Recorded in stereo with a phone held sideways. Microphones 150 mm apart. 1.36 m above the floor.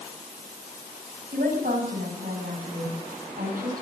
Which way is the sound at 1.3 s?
75° right (ahead or behind).